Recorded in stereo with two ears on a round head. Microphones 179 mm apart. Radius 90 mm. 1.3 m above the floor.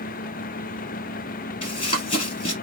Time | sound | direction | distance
1.6 | running footsteps | 25° left (ahead or behind) | 1.7 m